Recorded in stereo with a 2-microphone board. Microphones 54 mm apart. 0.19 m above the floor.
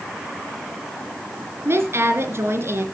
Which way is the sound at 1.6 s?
55° right (ahead or behind).